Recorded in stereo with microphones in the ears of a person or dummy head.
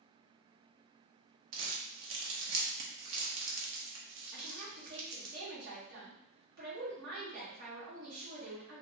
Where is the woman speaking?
55° right (ahead or behind), 1.5 m.